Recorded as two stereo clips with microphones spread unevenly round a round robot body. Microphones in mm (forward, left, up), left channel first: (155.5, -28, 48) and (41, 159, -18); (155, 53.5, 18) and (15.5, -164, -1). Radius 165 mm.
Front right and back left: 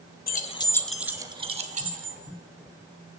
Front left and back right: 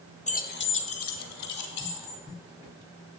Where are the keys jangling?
5° right, 1.3 m; by 2.2 s 85° left, 2.5 m.